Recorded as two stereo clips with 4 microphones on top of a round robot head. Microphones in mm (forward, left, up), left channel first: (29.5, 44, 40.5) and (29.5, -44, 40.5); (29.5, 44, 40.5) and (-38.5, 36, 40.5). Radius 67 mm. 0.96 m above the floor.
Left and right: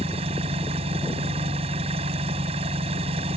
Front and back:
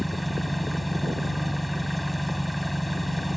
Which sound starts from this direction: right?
An engine running, at 0.0 s.